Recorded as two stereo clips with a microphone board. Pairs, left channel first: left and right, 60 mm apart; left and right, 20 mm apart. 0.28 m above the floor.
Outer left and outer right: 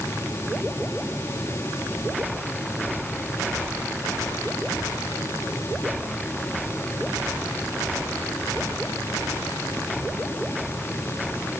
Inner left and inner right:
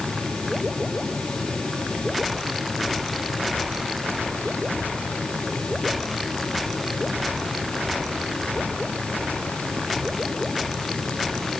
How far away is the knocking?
I don't hear knocking.